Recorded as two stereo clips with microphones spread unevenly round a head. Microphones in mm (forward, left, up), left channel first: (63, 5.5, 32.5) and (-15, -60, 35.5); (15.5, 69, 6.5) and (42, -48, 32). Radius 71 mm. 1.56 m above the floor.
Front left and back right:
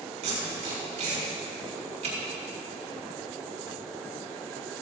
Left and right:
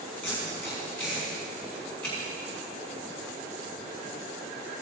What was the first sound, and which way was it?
Tape being pulled, 175° right.